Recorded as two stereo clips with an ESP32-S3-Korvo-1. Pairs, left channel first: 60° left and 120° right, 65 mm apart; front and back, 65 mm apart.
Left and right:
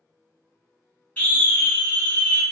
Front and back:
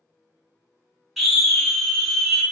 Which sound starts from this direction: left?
A scream, at 1.2 s.